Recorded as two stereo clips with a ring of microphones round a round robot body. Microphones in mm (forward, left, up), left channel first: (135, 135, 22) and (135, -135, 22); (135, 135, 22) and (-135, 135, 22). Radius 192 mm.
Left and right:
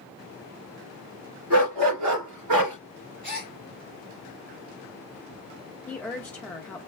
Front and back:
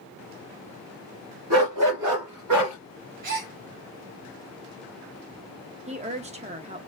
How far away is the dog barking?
About 1.9 m.